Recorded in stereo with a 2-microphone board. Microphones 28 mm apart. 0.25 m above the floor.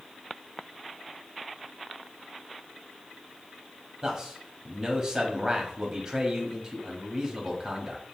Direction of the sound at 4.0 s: 25° right (ahead or behind).